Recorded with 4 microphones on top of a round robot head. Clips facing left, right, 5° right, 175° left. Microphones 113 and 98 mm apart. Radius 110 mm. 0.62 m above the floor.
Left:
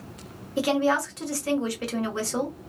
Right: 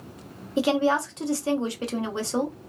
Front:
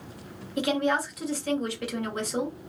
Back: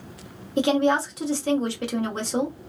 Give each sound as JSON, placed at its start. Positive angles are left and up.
{"t": 0.6, "sound": "a woman speaking", "azimuth_deg": -145, "distance_m": 1.1}